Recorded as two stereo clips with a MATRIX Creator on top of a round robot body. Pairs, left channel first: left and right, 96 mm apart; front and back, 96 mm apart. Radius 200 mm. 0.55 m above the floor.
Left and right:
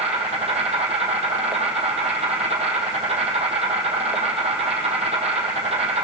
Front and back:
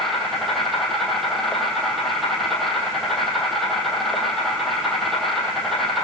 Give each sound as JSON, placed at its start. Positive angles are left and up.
{"t": 0.0, "sound": "an insect", "azimuth_deg": -90, "distance_m": 3.0}